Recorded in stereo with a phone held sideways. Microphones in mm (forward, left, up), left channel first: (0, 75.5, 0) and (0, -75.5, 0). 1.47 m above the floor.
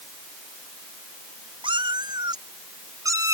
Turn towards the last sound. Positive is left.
turn(degrees=-20)  # may be behind; listen again after turning